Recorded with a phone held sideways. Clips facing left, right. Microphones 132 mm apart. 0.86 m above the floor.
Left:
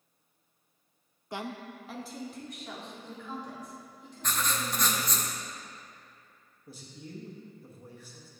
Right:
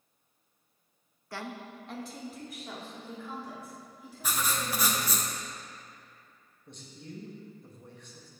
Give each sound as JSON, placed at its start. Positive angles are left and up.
{"t": 1.3, "sound": "a woman speaking", "side_deg": 20, "distance_m": 0.5}
{"t": 4.2, "sound": "writing", "side_deg": -10, "distance_m": 0.7}
{"t": 6.7, "sound": "a man speaking", "side_deg": 5, "distance_m": 1.0}